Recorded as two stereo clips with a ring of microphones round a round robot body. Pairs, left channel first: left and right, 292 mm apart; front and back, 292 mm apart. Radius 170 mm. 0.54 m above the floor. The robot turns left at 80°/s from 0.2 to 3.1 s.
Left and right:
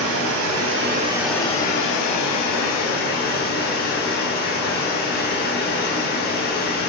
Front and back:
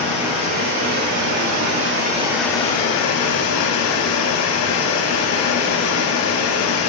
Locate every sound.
0.0 s running water: 95° right, 0.7 m; by 6.9 s 35° left, 0.7 m